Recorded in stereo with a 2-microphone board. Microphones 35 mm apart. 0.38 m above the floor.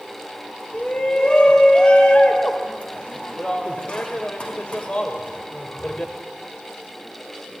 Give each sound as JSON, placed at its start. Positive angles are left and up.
{"t": 0.7, "sound": "a shout", "side_deg": 35, "distance_m": 1.8}